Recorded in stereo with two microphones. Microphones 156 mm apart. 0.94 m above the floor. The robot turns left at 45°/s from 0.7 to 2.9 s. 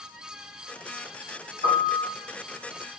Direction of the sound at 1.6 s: 60° left (ahead or behind).